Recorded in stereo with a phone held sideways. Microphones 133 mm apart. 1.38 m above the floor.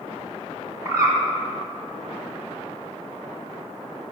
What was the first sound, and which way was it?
A bird, 25° right (ahead or behind).